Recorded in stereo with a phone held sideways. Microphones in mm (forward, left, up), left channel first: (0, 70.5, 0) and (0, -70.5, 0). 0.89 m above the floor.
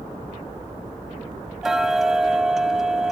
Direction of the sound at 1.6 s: 5° right (ahead or behind).